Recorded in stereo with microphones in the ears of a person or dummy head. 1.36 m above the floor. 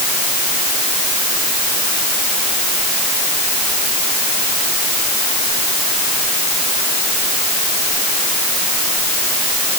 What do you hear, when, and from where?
Only background noise.